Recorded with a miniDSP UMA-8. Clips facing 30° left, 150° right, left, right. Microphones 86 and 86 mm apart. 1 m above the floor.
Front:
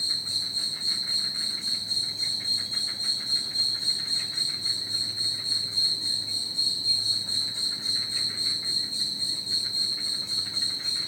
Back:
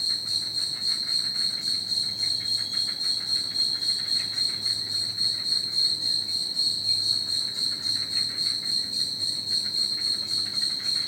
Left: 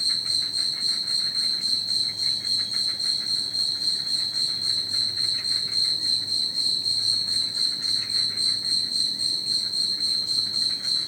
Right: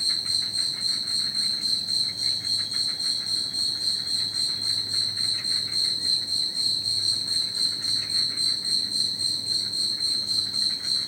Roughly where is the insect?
Behind right.